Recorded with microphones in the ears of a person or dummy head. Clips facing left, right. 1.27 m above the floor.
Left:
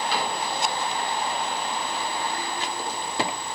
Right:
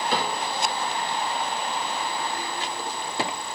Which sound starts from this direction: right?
A cupboard door, at 0.1 s.